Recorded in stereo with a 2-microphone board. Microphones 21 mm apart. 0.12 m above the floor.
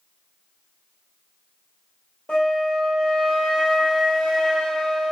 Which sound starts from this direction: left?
A flute, at 2.3 s.